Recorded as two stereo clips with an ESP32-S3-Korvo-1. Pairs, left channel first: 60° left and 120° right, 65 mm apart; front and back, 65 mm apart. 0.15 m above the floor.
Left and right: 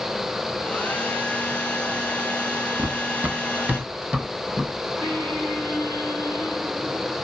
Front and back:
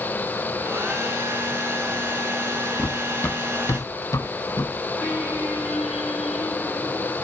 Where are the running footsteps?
85° right, 0.6 m; by 4.7 s 40° right, 1.9 m.